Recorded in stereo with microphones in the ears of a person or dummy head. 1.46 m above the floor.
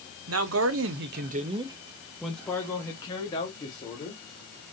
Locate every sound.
0.3 s a man speaking: 80° right, 0.9 m; by 4.7 s 40° left (ahead or behind), 2 m